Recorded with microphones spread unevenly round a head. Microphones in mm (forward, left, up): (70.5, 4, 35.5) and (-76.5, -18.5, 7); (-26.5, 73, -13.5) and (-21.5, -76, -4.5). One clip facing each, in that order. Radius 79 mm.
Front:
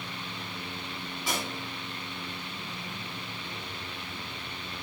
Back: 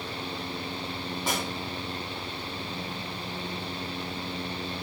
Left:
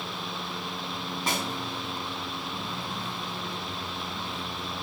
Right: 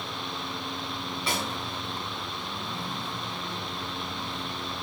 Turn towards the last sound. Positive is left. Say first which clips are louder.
# back 2 dB, even
turn(degrees=140)